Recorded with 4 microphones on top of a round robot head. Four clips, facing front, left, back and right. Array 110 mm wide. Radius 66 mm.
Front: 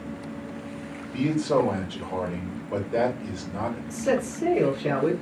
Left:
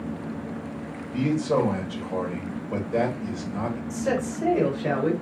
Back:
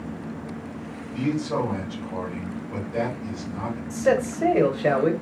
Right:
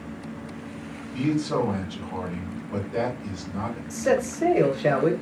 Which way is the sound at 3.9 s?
155° right.